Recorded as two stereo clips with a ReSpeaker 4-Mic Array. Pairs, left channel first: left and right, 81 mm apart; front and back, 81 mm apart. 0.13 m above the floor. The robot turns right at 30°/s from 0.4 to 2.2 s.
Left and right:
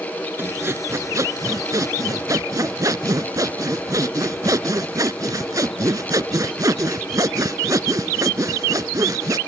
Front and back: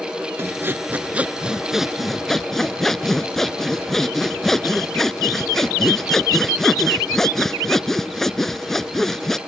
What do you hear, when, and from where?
0.4 s sawing: 140° right; by 9.4 s 85° right